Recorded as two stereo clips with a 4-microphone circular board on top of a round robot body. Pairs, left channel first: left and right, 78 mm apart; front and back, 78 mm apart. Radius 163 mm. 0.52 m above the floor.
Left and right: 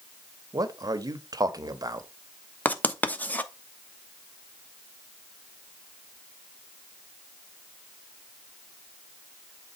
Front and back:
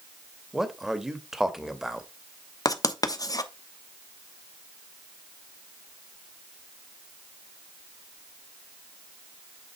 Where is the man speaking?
95° right, 1.0 m.